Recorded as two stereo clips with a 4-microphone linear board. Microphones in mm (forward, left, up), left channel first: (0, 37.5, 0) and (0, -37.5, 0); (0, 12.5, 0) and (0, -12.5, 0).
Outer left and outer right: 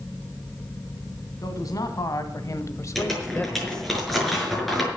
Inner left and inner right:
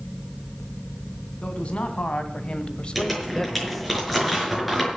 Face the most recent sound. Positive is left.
turn(degrees=5)  # may be behind; listen again after turning